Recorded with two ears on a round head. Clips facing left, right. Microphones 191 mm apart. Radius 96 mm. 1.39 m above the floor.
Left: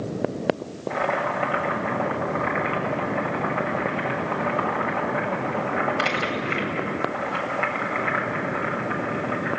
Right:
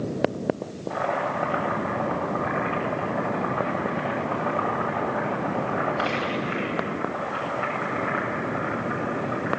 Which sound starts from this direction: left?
Boiling, at 0.9 s.